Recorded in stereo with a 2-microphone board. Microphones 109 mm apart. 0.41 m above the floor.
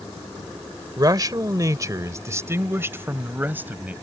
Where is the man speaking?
40° right (ahead or behind); by 3.9 s 15° right (ahead or behind).